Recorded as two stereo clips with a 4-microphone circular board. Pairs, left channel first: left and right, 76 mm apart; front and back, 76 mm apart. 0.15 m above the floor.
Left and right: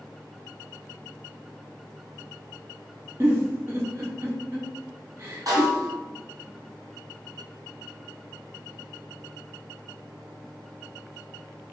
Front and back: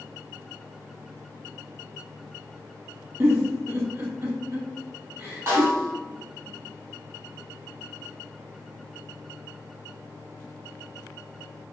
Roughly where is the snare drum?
Behind right.